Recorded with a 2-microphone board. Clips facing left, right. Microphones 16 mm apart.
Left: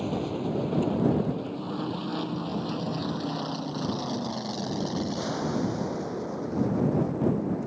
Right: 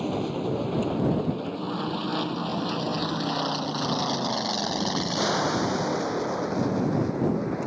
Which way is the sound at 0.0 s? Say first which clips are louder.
Right 2 dB; 15° right (ahead or behind).